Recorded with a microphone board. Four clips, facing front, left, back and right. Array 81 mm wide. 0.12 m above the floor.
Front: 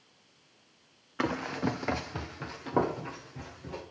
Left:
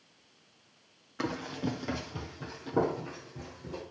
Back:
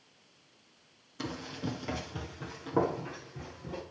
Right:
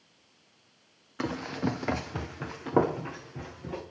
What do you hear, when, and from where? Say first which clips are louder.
1.2 s running footsteps: right 3 dB, front 7 dB; 5° right, 0.6 m; by 3.8 s 85° right, 2.5 m